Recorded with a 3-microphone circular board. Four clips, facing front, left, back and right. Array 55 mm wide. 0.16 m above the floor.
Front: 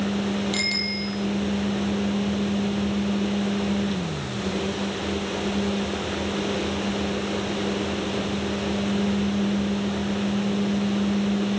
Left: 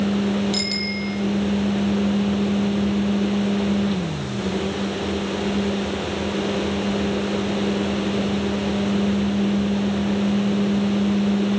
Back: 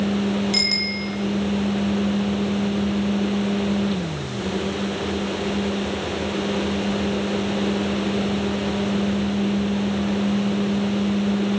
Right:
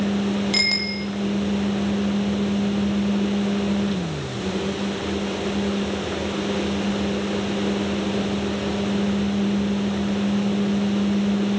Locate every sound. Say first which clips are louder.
0.5 s a bicycle bell: right 1 dB, back 2 dB; 110° right, 3.5 m